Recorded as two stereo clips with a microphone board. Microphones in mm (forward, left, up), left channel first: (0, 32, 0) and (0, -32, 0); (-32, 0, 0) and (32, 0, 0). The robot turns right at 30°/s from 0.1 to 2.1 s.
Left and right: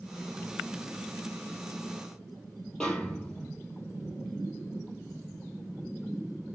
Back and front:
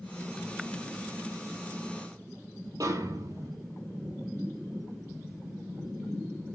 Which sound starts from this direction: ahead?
A snare drum, at 2.8 s.